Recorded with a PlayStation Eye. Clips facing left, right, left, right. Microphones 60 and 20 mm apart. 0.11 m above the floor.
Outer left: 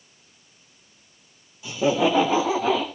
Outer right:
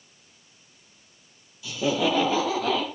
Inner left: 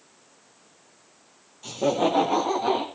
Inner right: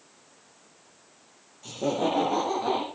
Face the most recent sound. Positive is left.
turn(degrees=15)  # may be behind; listen again after turning